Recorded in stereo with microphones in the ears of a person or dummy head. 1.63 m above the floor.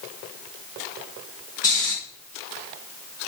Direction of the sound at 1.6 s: 20° left (ahead or behind).